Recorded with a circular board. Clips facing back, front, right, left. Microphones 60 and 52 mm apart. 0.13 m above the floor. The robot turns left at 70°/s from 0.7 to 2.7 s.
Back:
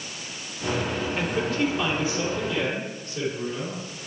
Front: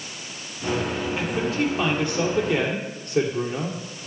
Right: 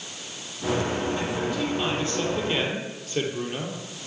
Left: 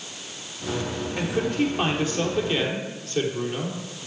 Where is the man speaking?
90° left, 3 m; by 3.8 s 20° right, 3 m.